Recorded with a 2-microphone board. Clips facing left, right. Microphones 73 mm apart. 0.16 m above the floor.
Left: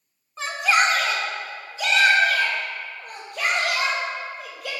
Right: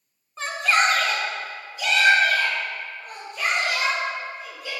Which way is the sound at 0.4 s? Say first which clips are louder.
Left 1 dB; centre (ahead or behind).